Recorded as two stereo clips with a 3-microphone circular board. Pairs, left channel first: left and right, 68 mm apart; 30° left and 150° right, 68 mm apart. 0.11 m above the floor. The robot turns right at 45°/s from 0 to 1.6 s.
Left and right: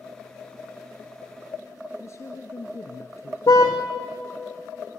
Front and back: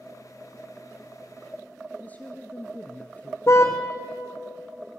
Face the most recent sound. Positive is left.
turn(degrees=75)